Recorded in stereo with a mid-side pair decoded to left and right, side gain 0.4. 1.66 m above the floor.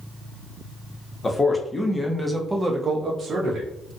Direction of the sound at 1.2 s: 30° left.